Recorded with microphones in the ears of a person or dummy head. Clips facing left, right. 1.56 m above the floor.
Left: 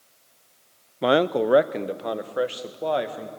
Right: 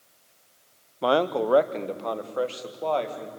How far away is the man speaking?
About 0.6 m.